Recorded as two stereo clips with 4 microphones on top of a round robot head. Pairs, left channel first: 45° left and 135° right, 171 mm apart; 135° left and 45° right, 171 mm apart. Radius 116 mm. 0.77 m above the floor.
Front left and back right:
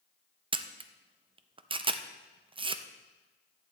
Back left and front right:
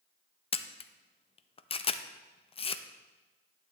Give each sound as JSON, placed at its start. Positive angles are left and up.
{"t": 0.5, "sound": "a camera shutter", "azimuth_deg": 180, "distance_m": 0.5}